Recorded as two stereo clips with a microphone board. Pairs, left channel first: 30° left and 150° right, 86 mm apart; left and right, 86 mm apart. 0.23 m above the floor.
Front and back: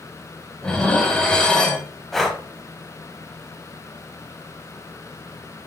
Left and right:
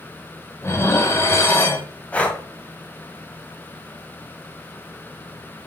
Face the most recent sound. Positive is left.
turn(degrees=110)